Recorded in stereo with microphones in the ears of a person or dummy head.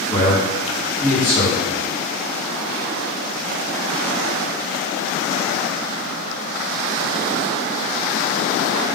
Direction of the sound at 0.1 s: 55° left (ahead or behind).